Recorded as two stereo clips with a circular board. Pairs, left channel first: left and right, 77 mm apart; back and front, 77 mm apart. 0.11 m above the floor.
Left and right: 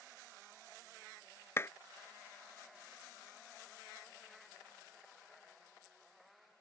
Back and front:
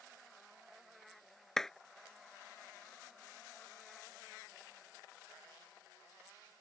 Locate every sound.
1.6 s a clap: 100° left